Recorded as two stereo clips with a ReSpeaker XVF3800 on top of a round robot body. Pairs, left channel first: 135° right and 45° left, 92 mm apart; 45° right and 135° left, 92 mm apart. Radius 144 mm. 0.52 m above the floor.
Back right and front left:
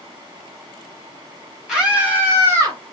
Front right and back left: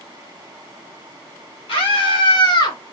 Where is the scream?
40° right, 2 m; by 2.8 s 5° right, 2.5 m.